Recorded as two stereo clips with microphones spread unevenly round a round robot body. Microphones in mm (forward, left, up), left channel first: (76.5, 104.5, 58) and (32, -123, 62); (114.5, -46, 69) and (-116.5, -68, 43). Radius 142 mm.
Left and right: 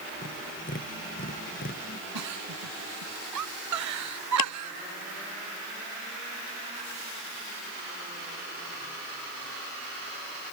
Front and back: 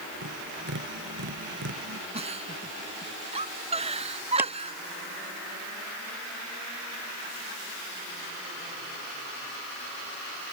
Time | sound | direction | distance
0.2 | tapping | 140° left | ?
2.1 | a giggle | 110° right | ?
4.4 | a clap | 100° left | ?